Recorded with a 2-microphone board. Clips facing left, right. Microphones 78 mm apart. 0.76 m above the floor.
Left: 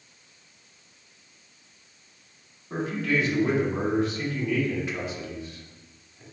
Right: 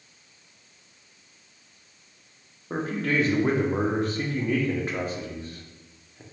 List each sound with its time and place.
2.7 s a man speaking: 45° right (ahead or behind), 0.8 m